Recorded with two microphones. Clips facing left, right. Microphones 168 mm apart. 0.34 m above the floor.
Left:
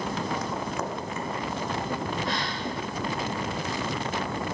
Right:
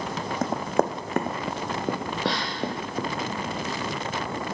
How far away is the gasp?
About 2.5 m.